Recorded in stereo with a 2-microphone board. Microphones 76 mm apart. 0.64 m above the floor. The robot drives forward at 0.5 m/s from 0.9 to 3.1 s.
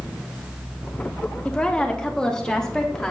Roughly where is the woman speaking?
Centre.